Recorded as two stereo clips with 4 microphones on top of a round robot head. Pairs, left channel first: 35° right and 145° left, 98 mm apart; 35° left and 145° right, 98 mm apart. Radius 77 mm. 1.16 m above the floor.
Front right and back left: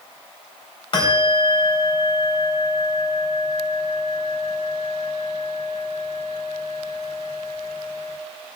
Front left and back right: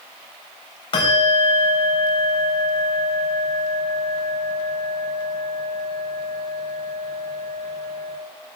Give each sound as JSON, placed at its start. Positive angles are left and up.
{"t": 0.9, "sound": "a bell", "azimuth_deg": 5, "distance_m": 4.0}